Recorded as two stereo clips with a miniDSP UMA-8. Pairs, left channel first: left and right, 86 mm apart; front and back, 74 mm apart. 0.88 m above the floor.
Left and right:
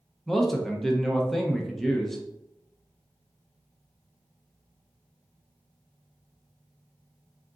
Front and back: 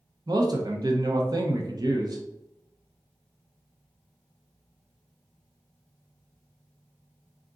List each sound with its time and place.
0.3 s a man speaking: 175° left, 0.7 m